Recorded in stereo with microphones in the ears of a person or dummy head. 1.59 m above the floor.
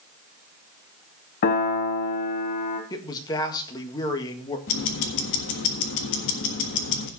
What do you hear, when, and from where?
1.4 s a piano: 45° left (ahead or behind), 1.5 m
2.9 s a man speaking: 20° left (ahead or behind), 1.8 m
4.7 s ticking: 55° left (ahead or behind), 1.5 m